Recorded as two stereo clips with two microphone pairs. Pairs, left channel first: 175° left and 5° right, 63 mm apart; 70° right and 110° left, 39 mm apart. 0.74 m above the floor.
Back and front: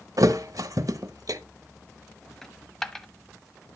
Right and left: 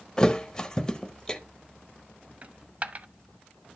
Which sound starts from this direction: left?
A dropped coin, at 2.4 s.